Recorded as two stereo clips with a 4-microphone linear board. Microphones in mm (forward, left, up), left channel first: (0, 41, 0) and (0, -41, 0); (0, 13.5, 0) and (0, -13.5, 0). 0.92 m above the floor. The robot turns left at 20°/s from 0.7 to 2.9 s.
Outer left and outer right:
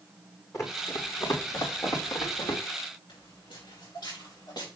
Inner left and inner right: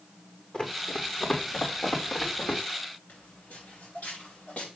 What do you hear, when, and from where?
0.5 s running footsteps: 40° left (ahead or behind), 2.5 m; by 2.6 s 45° left (ahead or behind), 3.5 m
3.1 s footsteps: 75° left (ahead or behind), 6.5 m; by 4.7 s 55° left (ahead or behind), 6.5 m